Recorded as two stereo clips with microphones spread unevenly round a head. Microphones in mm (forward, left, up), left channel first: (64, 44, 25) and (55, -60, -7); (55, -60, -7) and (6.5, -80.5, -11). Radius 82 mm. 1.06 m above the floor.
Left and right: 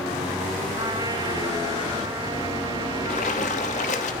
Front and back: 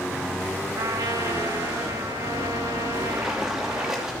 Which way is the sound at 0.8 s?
165° right.